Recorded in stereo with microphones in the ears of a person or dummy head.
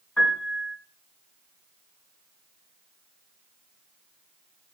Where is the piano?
10° left (ahead or behind), 7.5 m.